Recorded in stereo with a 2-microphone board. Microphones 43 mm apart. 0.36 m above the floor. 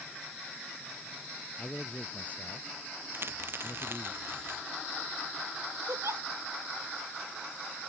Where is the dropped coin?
55° right (ahead or behind).